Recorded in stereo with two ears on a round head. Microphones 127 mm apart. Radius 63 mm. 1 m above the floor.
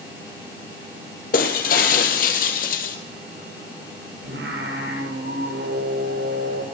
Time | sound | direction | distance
1.3 | breaking glass | 65° left (ahead or behind) | 3 m
4.2 | singing | 85° right | 9 m